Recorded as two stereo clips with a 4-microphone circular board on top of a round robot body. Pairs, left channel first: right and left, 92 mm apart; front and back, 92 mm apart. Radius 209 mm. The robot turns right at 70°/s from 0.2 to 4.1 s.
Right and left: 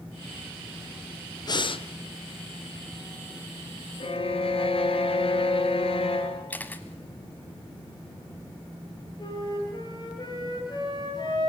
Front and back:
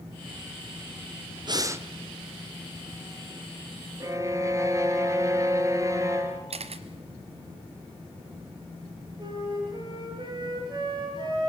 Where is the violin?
125° right, 2.5 m; by 6.4 s 120° right, 2.5 m.